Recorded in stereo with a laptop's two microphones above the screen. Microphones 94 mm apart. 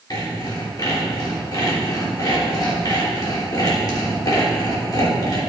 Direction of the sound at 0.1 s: 45° left (ahead or behind).